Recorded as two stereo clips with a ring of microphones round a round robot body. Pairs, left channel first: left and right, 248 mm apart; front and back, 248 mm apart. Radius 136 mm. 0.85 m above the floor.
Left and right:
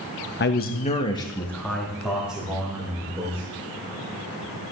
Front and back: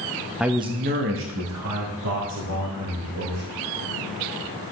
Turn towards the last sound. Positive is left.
turn(degrees=-170)